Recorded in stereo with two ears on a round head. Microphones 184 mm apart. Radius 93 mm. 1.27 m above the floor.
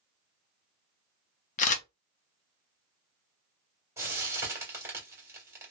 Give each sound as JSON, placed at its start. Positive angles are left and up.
{"t": 1.6, "sound": "a camera shutter", "side_deg": 35, "distance_m": 0.6}
{"t": 4.0, "sound": "frying", "side_deg": -15, "distance_m": 1.4}